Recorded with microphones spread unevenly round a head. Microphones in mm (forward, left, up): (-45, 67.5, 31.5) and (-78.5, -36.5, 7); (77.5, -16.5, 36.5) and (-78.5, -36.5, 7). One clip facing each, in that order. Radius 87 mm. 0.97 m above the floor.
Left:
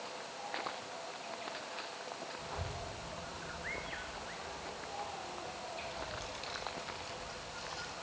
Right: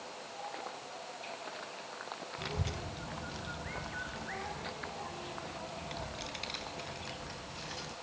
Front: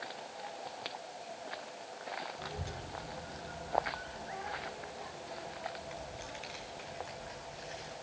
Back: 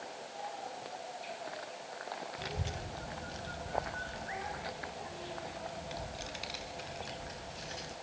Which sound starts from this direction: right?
A child speaking, at 2.4 s.